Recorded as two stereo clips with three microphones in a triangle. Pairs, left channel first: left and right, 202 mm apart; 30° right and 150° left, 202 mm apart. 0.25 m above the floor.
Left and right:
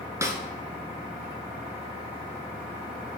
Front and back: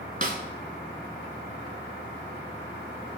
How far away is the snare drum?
About 0.9 m.